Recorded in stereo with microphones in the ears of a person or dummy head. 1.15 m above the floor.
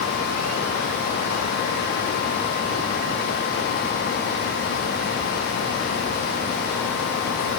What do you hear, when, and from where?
Only background noise.